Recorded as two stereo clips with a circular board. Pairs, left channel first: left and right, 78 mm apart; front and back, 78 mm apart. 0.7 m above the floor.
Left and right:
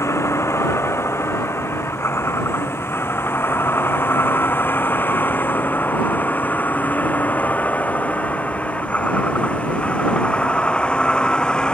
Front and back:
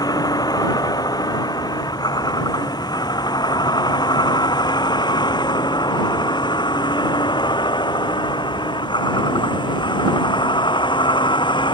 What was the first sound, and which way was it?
A vehicle, 35° left.